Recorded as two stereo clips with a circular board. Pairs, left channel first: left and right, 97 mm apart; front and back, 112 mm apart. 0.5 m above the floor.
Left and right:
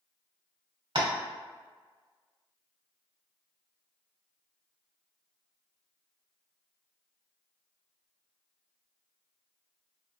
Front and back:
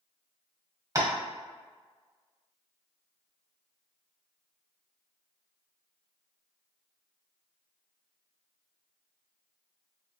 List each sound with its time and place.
0.9 s tapping: 120° right, 0.7 m